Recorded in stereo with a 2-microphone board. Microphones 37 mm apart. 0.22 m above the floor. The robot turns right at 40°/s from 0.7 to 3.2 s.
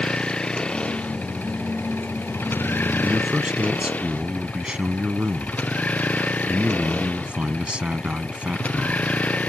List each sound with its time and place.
0.0 s a vehicle: 25° left (ahead or behind); by 9.5 s 45° left (ahead or behind)
3.0 s a man speaking: 40° right (ahead or behind); by 9.2 s 35° right (ahead or behind)